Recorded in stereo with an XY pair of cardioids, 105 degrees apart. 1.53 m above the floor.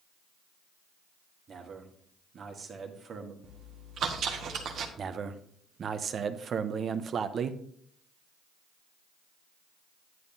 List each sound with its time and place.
1.5 s a man speaking: 50° right, 1.6 m
3.4 s chewing: 65° right, 1.2 m
5.0 s a man speaking: 50° right, 0.8 m